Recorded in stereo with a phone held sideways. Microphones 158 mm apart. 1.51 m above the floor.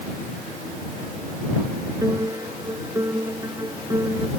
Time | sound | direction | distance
2.0 | a piano | 20° right (ahead or behind) | ?